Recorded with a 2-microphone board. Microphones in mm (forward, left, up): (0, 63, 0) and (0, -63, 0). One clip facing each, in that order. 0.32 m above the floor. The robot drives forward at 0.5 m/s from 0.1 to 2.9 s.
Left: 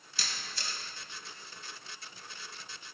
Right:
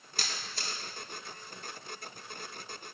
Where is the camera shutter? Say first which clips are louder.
Right 2 dB; 55° right (ahead or behind), 0.9 m; by 0.8 s 45° right (ahead or behind), 1.0 m.